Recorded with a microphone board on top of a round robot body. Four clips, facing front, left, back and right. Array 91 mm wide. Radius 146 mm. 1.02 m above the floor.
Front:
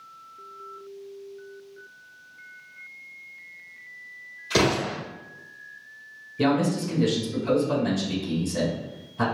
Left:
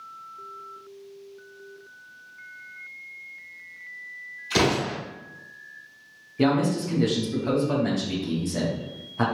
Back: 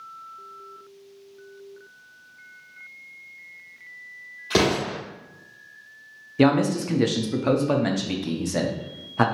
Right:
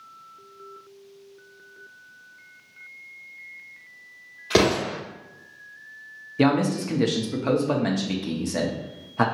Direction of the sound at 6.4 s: 150° right.